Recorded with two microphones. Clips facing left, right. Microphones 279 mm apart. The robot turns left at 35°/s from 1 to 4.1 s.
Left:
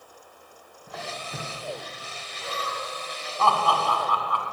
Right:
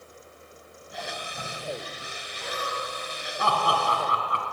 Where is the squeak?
80° left, 3 m.